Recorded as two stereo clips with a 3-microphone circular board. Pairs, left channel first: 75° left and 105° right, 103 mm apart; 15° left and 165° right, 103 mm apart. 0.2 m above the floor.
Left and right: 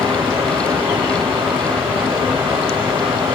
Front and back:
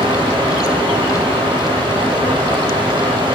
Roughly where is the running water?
Behind right.